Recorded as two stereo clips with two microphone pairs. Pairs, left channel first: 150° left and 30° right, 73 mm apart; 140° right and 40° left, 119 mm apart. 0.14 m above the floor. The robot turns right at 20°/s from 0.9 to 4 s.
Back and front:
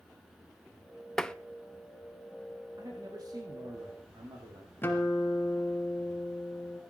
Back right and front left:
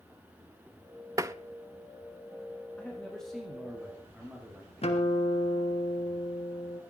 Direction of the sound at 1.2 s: 75° left.